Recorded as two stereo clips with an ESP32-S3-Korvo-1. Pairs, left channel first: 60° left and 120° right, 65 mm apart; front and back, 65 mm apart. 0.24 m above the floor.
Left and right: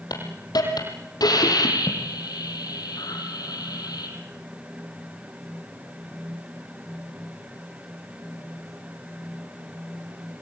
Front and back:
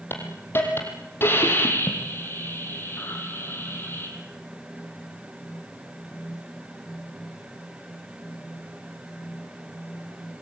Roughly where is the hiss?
Ahead left.